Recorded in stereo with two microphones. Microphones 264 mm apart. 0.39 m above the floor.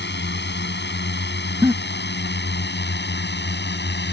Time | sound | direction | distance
0.0 | a drone | 40° left (ahead or behind) | ?
1.6 | a giggle | 10° right (ahead or behind) | ?